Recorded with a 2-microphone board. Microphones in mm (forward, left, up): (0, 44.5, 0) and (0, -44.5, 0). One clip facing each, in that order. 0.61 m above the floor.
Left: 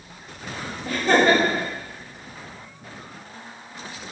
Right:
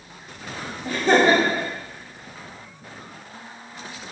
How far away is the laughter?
About 0.7 m.